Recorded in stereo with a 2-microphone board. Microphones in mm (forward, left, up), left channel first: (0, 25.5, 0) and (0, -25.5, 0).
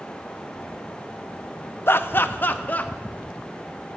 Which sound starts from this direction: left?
Laughter, at 1.9 s.